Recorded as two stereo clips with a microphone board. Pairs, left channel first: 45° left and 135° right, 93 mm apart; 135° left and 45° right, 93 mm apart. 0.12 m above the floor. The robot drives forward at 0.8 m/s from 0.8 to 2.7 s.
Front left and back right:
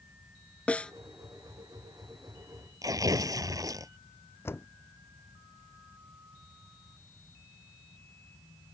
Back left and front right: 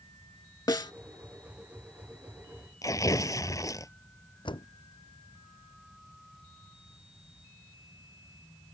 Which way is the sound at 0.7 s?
115° left.